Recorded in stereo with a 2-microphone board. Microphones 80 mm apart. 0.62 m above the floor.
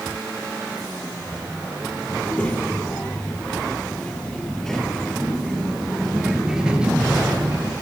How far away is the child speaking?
About 9.5 m.